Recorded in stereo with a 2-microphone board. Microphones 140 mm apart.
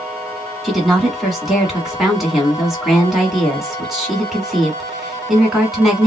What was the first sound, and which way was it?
A woman speaking, centre (ahead or behind).